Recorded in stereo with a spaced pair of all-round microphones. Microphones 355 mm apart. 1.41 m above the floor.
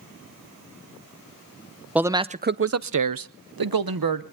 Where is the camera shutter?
I don't hear a camera shutter.